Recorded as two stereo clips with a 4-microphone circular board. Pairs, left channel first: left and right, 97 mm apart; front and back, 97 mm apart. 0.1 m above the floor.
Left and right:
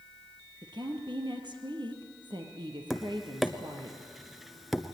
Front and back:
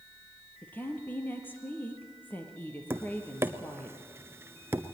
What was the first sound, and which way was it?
A woman speaking, 70° right.